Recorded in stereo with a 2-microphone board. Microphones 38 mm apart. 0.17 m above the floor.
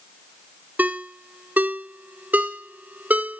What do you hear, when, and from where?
0.8 s a ringtone: 50° right (ahead or behind), 0.8 m